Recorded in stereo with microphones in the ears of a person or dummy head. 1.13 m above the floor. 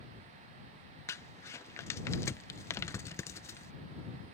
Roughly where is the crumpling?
Centre.